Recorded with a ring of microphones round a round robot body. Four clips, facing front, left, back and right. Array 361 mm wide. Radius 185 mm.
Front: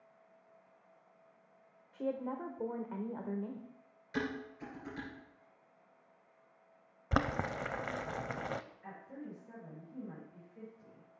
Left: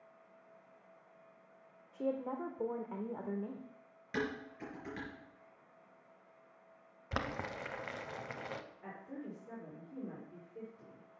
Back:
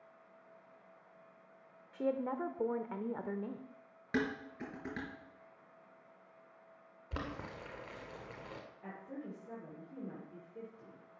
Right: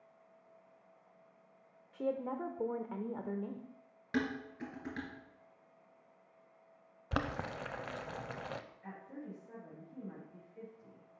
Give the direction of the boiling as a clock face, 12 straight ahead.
12 o'clock.